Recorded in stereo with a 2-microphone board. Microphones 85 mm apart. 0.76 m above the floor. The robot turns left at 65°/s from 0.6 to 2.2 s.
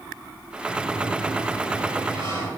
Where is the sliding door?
10° left, 5.5 m; by 2.5 s 90° right, 5.5 m.